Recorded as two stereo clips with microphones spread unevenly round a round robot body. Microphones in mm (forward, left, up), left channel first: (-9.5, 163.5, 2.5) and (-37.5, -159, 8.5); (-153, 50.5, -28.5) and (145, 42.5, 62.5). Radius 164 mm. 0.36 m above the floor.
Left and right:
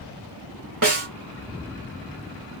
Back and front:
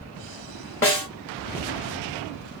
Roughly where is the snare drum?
Behind right.